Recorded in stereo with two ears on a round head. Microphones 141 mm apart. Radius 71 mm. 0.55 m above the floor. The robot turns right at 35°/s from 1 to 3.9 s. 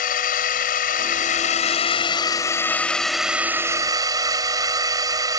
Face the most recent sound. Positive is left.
turn(degrees=-150)